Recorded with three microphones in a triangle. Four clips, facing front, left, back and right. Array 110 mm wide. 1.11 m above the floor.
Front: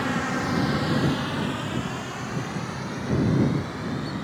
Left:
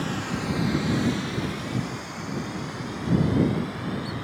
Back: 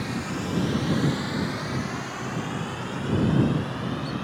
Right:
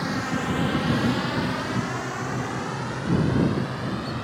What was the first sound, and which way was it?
A drone, 15° right.